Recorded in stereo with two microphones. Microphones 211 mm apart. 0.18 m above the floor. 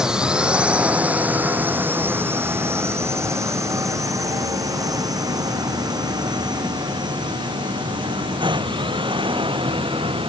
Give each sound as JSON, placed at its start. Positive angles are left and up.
{"t": 0.0, "sound": "a drone", "side_deg": -5}